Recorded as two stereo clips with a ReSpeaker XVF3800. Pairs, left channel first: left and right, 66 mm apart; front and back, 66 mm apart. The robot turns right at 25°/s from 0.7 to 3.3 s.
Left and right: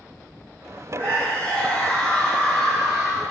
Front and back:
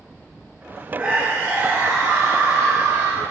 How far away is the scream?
About 2 m.